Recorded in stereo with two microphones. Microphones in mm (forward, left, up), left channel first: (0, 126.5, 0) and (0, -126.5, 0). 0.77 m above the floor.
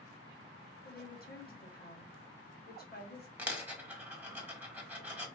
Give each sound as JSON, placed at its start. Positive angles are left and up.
{"t": 0.8, "sound": "a woman speaking", "side_deg": 40, "distance_m": 1.0}
{"t": 3.4, "sound": "a dropped coin", "side_deg": -10, "distance_m": 1.0}